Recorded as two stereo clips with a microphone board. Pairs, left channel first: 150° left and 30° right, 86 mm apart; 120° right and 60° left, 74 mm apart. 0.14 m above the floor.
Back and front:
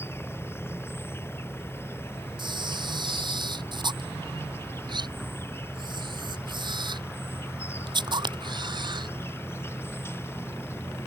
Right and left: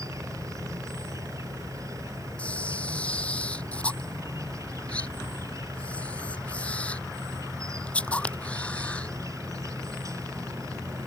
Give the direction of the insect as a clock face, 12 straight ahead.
9 o'clock.